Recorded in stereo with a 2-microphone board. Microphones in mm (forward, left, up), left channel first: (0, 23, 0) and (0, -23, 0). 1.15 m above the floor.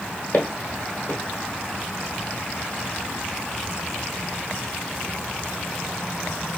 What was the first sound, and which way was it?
Footsteps, 40° left (ahead or behind).